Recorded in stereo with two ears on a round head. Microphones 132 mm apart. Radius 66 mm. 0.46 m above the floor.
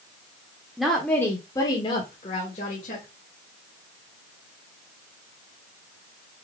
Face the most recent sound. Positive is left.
turn(degrees=55)  # may be behind; listen again after turning